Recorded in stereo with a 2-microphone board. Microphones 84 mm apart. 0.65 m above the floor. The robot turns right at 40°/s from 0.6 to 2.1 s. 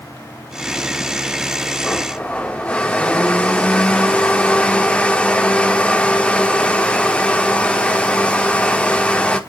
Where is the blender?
5° left (ahead or behind), 1.0 m; by 9.4 s 15° left (ahead or behind), 1.0 m.